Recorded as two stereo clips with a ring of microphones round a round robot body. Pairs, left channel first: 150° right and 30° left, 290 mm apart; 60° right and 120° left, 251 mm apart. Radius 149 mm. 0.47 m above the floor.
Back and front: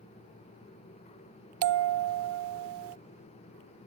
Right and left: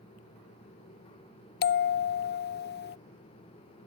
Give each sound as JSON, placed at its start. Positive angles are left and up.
{"t": 1.6, "sound": "a bell", "azimuth_deg": -10}